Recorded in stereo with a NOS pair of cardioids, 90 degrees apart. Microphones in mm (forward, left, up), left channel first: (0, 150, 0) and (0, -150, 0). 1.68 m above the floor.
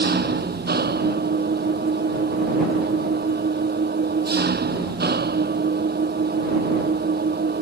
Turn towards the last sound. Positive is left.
turn(degrees=-30)